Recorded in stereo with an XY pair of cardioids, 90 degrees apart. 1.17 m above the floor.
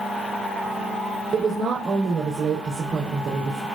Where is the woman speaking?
65° right, 4 m.